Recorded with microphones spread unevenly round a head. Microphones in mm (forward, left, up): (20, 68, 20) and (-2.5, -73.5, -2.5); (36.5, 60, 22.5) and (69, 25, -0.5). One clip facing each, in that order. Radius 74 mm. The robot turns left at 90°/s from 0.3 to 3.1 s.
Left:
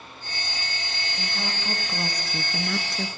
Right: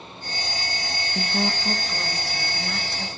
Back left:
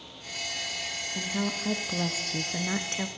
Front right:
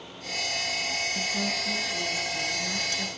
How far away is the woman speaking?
About 1.5 m.